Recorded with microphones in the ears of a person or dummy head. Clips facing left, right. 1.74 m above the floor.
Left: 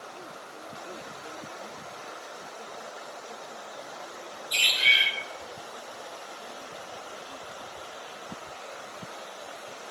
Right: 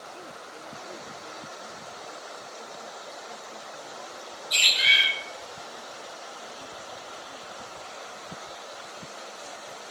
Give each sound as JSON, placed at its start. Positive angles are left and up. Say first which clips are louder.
{"t": 4.5, "sound": "a bird", "louder": "right 1 dB", "side_deg": -25, "distance_m": 0.8}